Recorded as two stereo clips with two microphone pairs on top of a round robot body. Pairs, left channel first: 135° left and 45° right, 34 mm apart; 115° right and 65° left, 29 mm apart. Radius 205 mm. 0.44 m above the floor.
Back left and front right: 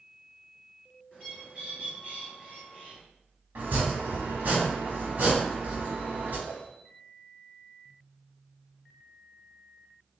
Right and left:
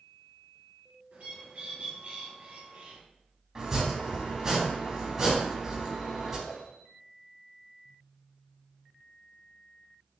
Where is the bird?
20° left, 2.5 m.